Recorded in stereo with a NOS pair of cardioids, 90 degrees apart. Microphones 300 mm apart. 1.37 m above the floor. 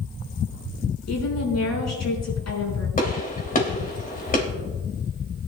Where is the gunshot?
30° left, 3 m.